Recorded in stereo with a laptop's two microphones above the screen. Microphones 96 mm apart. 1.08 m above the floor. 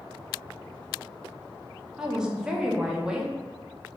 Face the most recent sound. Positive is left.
turn(degrees=-10)  # may be behind; listen again after turning